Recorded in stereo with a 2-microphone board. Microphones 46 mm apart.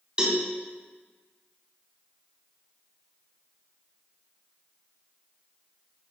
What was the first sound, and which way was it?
A cowbell, 25° right (ahead or behind).